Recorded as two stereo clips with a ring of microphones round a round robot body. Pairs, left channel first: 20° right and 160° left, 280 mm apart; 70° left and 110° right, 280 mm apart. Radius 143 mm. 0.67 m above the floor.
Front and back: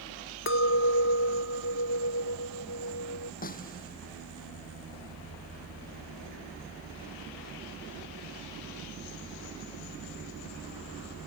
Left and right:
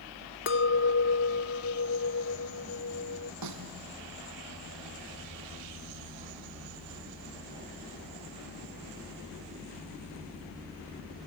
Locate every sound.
0.5 s a clink: 20° left
3.4 s a snare drum: 85° right